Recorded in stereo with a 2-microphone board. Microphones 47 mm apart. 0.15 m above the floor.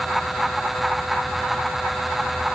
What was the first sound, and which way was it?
Only background noise.